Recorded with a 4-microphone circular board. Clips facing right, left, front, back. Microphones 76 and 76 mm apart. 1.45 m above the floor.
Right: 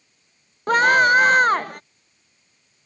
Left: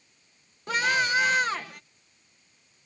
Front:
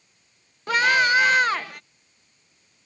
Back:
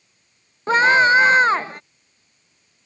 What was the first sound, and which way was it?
A scream, 120° right.